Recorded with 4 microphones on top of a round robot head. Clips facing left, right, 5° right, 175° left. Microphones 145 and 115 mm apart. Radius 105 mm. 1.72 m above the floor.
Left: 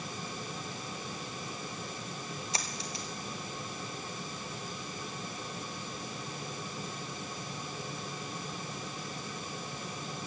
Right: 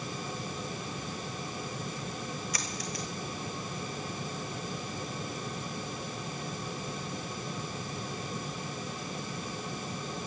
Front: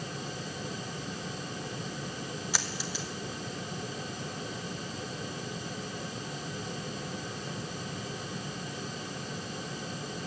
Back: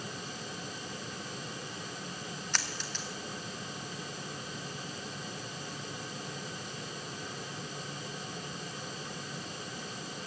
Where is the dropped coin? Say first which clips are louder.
Right 2 dB, front 3 dB; 65° left, 1.0 m.